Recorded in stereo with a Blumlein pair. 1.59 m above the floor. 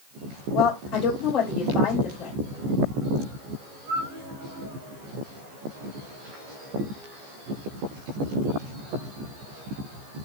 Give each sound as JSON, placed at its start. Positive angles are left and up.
{"t": 0.5, "sound": "a woman speaking", "azimuth_deg": 40, "distance_m": 2.0}